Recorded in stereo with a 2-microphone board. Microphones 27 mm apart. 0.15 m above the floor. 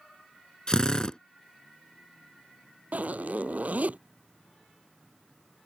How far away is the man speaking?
No man speaking in this recording.